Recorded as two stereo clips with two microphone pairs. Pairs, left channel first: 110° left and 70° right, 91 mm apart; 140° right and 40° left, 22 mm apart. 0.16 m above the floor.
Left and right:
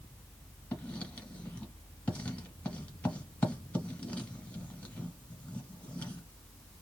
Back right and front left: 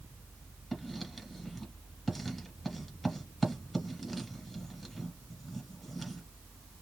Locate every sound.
0.7 s writing: 150° left, 1.2 m